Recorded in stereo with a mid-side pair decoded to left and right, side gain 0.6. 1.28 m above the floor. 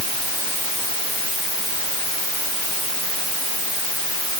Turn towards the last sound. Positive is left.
No sound to turn to.